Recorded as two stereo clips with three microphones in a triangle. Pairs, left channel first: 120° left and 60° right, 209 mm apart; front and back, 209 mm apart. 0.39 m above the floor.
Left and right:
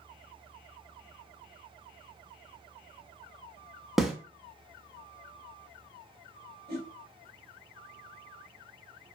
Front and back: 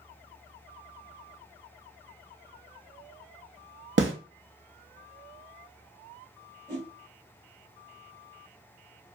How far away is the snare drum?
About 0.5 m.